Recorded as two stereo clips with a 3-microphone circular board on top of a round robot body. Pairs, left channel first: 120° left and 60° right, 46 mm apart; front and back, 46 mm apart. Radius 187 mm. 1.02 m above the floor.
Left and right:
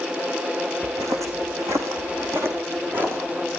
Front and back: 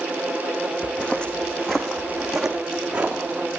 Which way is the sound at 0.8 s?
60° right.